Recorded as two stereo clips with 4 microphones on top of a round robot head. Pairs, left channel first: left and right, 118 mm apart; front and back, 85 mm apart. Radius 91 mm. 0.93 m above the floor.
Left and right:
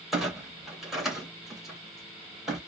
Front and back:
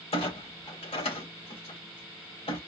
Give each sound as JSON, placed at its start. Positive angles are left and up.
{"t": 0.1, "sound": "a clunk", "azimuth_deg": -5, "distance_m": 2.0}